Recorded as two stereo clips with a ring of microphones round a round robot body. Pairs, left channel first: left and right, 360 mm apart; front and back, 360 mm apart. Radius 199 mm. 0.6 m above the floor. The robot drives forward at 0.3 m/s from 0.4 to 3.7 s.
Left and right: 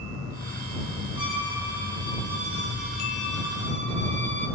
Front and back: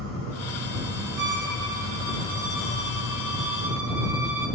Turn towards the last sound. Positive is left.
turn(degrees=150)